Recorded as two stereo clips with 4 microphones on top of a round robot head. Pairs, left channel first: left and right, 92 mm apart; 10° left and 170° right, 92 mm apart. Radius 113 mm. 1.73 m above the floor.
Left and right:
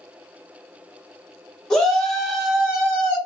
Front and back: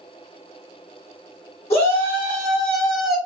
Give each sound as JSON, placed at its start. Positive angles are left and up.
{"t": 1.7, "sound": "a shout", "azimuth_deg": 5, "distance_m": 0.9}